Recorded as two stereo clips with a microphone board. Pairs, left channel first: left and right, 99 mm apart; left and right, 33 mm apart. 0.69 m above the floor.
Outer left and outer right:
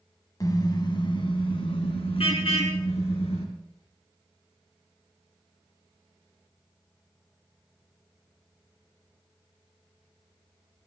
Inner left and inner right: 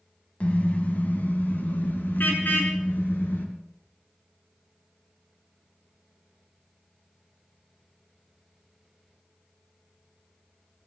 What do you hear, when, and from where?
0.4 s a car horn: 40° left (ahead or behind), 2 m; by 3.4 s 80° left, 4.5 m